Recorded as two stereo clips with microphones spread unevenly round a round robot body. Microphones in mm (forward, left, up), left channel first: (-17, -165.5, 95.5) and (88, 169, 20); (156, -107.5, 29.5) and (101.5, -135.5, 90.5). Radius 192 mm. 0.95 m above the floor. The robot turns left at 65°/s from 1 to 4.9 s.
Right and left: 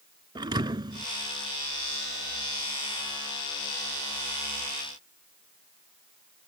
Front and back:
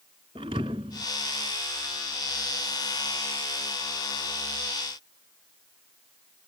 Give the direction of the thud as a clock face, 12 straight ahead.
7 o'clock.